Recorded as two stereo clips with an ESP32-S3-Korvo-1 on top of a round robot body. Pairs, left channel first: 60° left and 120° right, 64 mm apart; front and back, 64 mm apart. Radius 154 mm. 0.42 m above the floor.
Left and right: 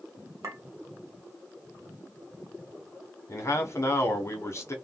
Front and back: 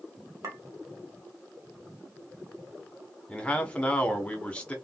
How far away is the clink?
About 1.5 m.